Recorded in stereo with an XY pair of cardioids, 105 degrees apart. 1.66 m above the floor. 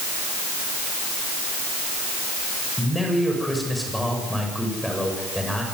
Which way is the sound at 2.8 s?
Straight ahead.